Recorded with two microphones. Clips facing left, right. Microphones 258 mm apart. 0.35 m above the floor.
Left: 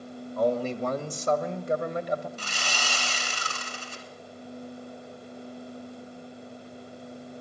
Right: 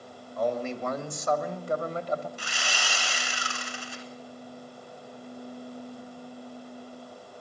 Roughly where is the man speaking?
Left.